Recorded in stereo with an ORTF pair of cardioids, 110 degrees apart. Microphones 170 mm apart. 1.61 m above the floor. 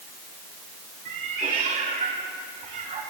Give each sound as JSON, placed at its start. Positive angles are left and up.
{"t": 1.1, "sound": "a cat meowing", "azimuth_deg": -50, "distance_m": 3.5}